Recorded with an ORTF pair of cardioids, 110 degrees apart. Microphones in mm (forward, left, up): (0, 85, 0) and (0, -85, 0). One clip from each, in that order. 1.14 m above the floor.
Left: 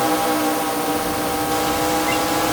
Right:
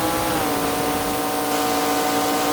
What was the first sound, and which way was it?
Only background noise.